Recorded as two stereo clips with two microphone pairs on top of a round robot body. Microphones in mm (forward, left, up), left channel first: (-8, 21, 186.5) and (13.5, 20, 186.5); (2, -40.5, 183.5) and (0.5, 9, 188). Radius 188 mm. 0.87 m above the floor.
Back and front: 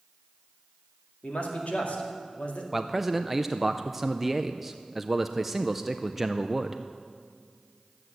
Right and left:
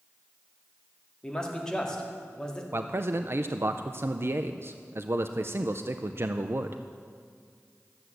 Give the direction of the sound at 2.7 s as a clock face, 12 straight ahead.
9 o'clock.